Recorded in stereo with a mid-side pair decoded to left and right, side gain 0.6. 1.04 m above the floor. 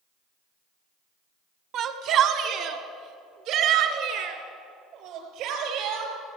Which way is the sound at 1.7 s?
60° right.